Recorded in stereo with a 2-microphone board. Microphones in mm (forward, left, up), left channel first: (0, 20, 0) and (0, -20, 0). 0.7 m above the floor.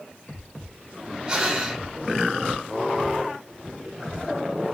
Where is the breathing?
20° right (ahead or behind), 1.0 m.